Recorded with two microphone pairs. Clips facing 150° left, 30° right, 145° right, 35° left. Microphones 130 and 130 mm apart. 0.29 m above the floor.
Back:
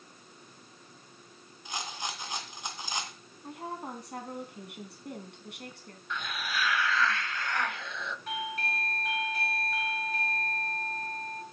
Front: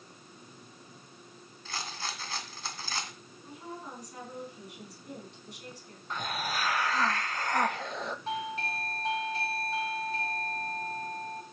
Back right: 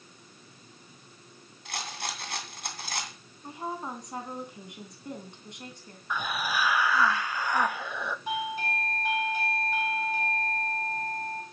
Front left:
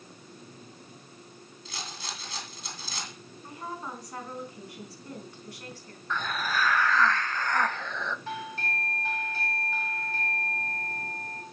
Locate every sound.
1.6 s a rattle: 140° right, 2.5 m
3.4 s a woman speaking: 150° left, 3 m
6.1 s a hiss: 70° right, 0.6 m
8.3 s a doorbell: 75° right, 2.5 m